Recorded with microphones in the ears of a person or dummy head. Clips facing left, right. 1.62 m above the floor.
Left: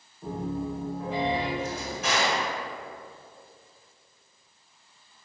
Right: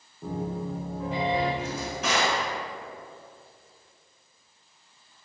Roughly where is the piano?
Right.